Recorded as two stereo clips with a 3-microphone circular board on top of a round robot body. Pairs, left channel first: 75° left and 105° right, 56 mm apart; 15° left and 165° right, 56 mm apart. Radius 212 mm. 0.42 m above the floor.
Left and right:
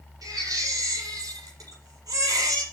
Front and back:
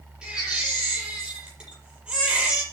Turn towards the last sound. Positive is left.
turn(degrees=-90)